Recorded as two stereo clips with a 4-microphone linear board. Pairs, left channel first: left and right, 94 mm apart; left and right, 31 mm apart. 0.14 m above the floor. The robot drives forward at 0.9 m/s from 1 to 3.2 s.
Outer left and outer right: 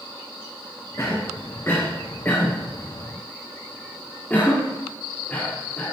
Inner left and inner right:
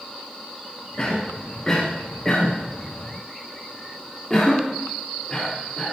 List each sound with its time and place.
1.0 s a cough: 35° left (ahead or behind), 1.5 m; by 5.9 s 15° left (ahead or behind), 3 m